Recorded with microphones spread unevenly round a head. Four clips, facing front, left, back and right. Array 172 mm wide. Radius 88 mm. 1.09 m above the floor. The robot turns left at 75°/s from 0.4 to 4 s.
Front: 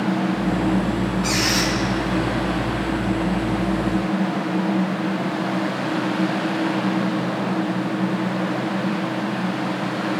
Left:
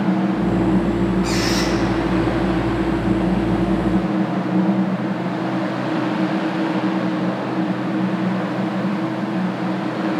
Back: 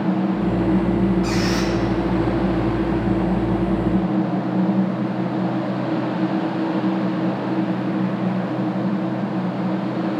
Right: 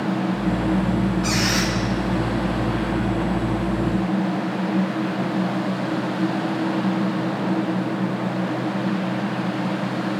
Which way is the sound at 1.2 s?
170° right.